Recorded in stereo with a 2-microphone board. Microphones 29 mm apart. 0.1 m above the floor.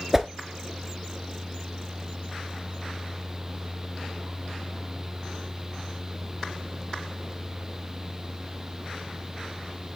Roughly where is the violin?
I don't hear a violin.